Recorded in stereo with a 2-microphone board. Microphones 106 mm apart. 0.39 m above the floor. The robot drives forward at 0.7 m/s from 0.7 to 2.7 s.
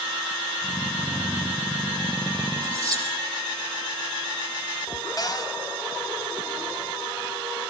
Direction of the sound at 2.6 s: 40° right (ahead or behind).